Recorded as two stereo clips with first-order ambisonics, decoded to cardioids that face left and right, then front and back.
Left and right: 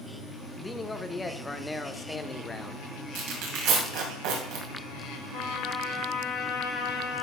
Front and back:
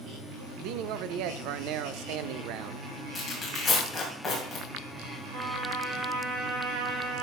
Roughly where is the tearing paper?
Right.